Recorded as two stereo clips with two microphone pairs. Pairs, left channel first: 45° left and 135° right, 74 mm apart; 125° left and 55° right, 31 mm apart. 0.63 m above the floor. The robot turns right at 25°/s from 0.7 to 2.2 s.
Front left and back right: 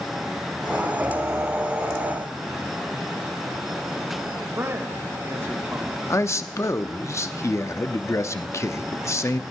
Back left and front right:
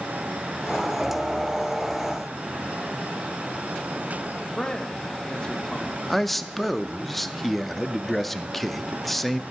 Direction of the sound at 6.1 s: 50° left.